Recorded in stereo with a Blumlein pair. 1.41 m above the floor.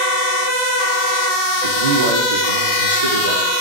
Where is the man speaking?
60° right, 3 m; by 3.5 s 75° right, 4 m.